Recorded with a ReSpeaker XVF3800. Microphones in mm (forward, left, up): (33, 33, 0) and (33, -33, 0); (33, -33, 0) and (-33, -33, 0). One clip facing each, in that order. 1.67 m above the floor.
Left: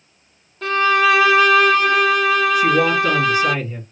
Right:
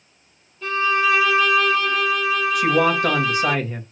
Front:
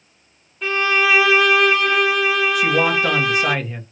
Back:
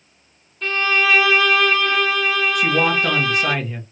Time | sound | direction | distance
0.6 | a violin | 80° left | 0.6 m
2.5 | a man speaking | 85° right | 1.2 m